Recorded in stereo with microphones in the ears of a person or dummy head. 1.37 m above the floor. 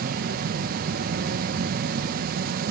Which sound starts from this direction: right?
An insect, at 0.0 s.